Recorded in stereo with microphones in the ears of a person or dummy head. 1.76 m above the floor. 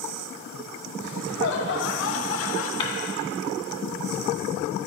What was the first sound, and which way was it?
Laughter, 60° left (ahead or behind).